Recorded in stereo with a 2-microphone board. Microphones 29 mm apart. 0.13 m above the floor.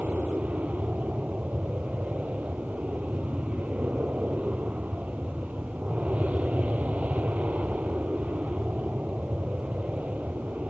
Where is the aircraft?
65° right (ahead or behind).